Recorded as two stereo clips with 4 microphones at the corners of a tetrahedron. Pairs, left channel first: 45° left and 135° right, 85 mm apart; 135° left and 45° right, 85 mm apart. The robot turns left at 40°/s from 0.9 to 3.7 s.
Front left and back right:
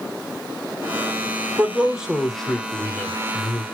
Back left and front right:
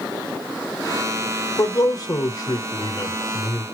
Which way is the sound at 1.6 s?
160° left.